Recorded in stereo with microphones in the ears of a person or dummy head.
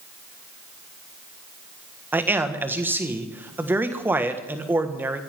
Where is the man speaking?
10° right (ahead or behind), 1.5 m.